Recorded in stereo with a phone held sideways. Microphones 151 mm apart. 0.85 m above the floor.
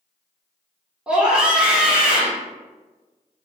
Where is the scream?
5° right (ahead or behind), 0.7 m.